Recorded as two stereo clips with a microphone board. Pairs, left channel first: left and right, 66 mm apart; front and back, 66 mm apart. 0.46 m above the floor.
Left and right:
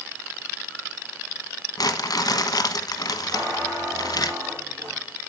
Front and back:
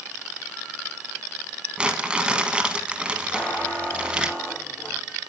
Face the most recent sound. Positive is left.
turn(degrees=-75)